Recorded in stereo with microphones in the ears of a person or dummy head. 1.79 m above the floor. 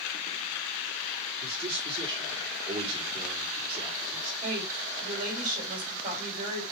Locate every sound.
1.4 s a man speaking: 30° right (ahead or behind), 4.5 m
4.4 s a woman speaking: 45° right (ahead or behind), 5 m